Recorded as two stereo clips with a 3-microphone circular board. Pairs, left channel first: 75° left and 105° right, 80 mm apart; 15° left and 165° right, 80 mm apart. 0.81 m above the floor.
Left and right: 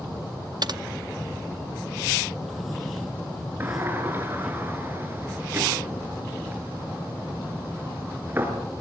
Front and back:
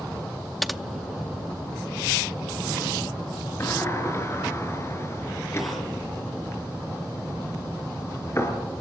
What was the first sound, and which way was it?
Typing on a keyboard, 75° right.